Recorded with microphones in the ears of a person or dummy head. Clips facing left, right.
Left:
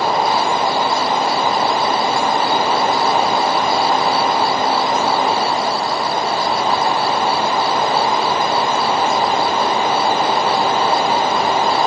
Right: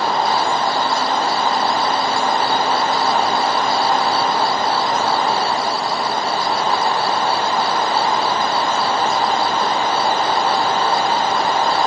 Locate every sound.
Only background noise.